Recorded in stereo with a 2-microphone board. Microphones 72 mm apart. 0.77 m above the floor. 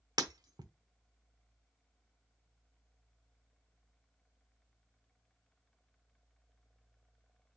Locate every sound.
0.2 s breaking glass: 70° right (ahead or behind), 0.8 m